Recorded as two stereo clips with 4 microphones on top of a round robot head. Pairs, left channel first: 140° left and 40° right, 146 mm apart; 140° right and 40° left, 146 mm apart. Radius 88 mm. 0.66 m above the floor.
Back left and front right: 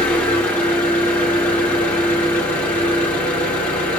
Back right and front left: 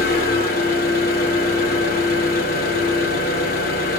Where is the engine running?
140° right, 1.7 m.